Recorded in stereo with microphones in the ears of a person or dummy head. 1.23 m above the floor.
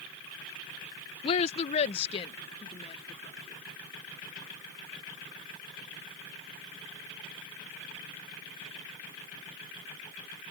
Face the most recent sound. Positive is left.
turn(degrees=35)  # may be behind; listen again after turning